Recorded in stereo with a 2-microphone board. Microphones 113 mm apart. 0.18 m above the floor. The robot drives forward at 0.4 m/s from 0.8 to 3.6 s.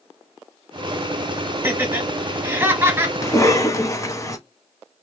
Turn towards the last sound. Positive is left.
turn(degrees=25)  # may be behind; listen again after turning